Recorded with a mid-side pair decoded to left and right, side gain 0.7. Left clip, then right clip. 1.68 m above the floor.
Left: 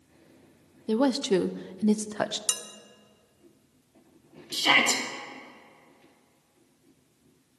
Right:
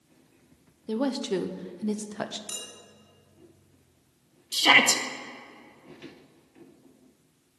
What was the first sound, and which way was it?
A woman speaking, 25° left.